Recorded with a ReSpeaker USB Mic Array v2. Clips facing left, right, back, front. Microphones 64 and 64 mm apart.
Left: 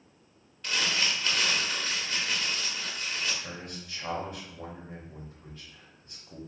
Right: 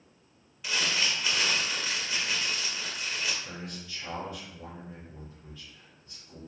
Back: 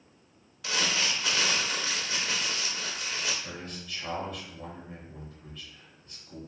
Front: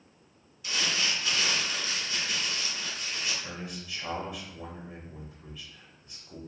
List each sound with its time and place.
0.6 s crumpling: 175° right, 0.6 m
3.4 s a man speaking: 70° left, 0.8 m